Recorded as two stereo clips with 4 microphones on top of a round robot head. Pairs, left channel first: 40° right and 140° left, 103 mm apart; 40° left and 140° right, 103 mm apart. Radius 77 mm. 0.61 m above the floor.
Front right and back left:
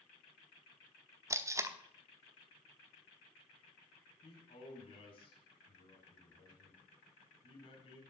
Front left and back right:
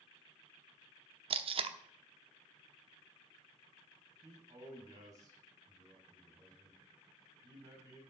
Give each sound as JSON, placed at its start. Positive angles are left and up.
{"t": 1.3, "sound": "tape being pulled", "azimuth_deg": -160, "distance_m": 1.0}
{"t": 4.2, "sound": "a man speaking", "azimuth_deg": -80, "distance_m": 5.5}